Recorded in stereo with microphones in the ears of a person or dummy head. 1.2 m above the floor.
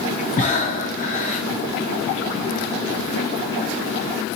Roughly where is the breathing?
Left.